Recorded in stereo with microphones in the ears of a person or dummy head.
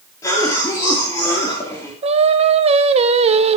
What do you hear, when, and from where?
0.2 s a cough: 20° left (ahead or behind), 3 m
2.0 s singing: 30° right (ahead or behind), 0.7 m